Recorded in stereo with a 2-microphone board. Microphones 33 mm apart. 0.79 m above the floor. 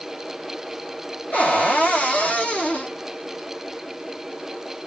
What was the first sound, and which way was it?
A cupboard door, 50° left (ahead or behind).